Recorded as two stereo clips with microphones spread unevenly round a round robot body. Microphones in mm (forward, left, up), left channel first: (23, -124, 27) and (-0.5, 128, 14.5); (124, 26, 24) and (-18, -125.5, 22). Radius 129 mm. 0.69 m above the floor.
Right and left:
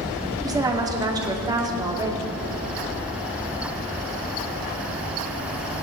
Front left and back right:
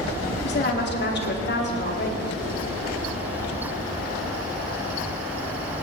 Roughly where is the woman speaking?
Ahead left.